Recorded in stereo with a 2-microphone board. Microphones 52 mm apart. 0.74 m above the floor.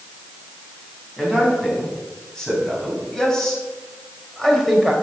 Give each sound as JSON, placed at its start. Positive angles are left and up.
{"t": 1.2, "sound": "a man speaking", "side_deg": 10, "distance_m": 5.0}